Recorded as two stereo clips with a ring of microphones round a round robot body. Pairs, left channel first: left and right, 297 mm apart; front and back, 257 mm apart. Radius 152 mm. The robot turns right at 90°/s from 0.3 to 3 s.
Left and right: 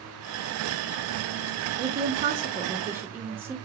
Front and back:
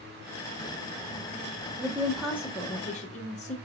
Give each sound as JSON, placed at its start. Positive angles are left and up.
{"t": 1.8, "sound": "a woman speaking", "azimuth_deg": -125, "distance_m": 0.7}